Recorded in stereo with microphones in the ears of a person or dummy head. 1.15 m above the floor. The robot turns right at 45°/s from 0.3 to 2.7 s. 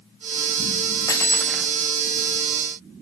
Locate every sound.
1.1 s cutlery clinking: 30° left (ahead or behind), 1.0 m; by 1.7 s centre (ahead or behind), 1.0 m